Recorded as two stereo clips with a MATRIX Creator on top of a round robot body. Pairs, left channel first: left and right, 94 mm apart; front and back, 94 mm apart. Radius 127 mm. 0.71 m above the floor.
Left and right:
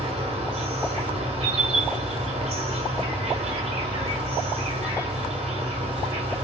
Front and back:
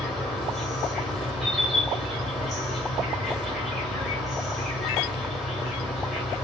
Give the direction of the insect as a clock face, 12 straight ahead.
3 o'clock.